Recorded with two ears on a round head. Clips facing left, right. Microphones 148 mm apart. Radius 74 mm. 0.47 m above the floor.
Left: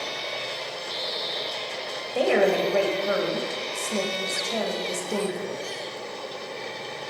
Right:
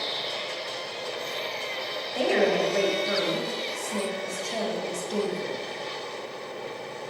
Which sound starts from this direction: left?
A woman speaking, at 2.1 s.